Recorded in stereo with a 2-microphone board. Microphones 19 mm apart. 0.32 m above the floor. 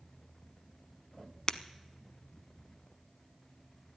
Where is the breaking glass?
35° left (ahead or behind), 0.6 m.